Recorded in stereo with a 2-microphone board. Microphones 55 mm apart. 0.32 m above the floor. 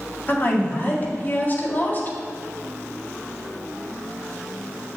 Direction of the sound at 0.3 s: 35° left (ahead or behind).